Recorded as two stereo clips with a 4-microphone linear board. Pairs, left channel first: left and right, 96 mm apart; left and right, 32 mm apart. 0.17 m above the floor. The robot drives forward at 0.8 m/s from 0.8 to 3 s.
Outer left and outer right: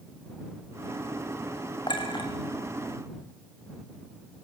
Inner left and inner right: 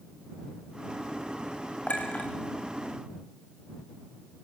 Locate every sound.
1.9 s a clink: 50° left (ahead or behind), 6.5 m